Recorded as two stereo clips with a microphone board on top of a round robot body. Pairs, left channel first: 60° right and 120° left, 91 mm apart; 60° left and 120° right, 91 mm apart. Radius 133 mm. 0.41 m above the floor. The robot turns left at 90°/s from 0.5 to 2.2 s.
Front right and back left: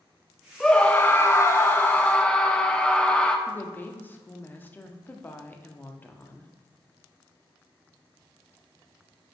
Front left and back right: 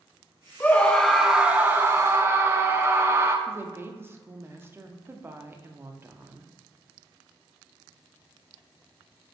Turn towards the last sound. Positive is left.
turn(degrees=-100)